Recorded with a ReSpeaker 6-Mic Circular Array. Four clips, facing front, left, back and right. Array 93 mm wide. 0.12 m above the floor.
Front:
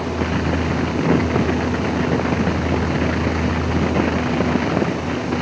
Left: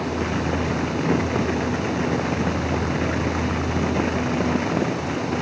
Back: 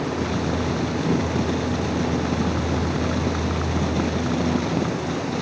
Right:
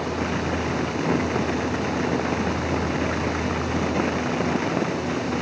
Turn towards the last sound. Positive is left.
No sound to turn to.